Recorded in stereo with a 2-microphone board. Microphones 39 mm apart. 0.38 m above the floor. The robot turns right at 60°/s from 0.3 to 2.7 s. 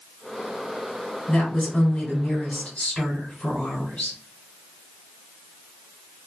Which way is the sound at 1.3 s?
35° left.